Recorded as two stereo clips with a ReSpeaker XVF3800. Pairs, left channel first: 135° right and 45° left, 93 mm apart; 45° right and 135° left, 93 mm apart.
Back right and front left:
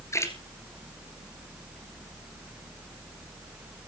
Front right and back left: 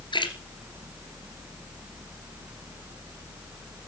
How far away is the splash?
About 2.5 m.